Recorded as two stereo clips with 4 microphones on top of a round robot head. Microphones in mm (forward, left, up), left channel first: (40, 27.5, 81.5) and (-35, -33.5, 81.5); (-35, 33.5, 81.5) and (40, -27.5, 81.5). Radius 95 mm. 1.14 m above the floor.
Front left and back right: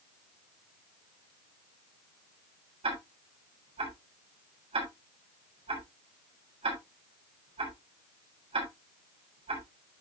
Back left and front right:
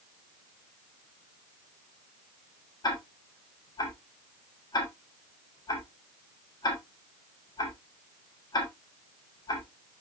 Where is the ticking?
170° right, 6.5 m.